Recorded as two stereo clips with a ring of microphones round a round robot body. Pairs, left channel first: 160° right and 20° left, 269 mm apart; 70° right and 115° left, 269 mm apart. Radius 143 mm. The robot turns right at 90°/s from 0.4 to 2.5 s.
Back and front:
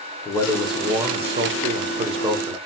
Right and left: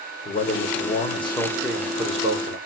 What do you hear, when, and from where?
0.2 s a man speaking: 95° right, 0.9 m; by 2.6 s 95° left, 0.9 m